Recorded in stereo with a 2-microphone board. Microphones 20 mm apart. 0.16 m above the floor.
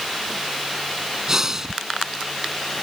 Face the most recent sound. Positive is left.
turn(degrees=-30)  # may be behind; listen again after turning